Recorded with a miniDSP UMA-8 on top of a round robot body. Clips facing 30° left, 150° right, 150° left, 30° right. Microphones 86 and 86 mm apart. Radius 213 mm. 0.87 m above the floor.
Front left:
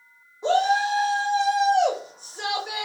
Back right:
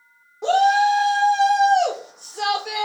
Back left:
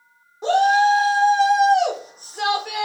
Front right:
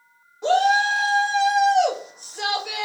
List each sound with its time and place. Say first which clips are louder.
0.4 s a shout: back right 5 dB, back left 3 dB; 140° right, 1.3 m